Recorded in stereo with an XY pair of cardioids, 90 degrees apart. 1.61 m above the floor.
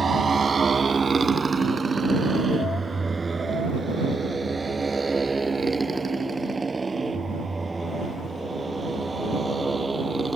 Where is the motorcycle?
40° right; by 10.4 s 25° right.